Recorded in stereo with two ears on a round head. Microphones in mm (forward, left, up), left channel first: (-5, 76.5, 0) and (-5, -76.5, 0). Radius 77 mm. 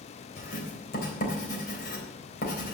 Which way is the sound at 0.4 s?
55° left (ahead or behind).